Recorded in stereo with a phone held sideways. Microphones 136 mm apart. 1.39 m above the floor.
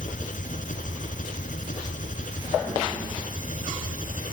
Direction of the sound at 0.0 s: 70° left (ahead or behind).